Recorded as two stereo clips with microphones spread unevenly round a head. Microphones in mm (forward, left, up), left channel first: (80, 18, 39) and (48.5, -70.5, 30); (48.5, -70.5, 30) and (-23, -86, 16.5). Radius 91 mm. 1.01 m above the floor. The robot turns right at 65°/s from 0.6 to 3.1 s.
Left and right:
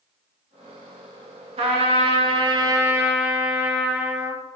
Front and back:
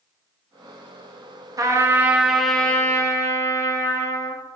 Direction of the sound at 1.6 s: 135° right.